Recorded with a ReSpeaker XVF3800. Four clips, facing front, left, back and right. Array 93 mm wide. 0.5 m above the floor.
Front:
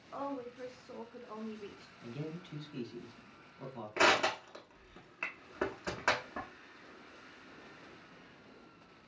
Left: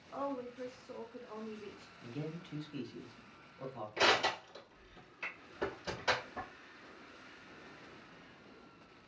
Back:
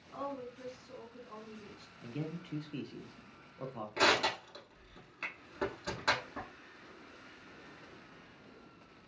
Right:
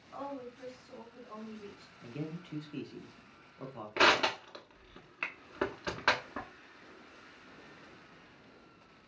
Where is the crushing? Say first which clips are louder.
Right 4 dB, front 1 dB; 65° right, 0.7 m.